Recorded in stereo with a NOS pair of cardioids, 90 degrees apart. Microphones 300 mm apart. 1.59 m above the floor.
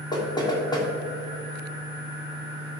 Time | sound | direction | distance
0.1 | knocking | 15° left | 3 m